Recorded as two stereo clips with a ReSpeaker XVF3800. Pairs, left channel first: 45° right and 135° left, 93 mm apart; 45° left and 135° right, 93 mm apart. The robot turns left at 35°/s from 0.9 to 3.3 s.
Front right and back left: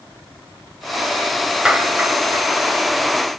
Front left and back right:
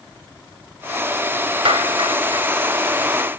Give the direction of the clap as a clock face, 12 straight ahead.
5 o'clock.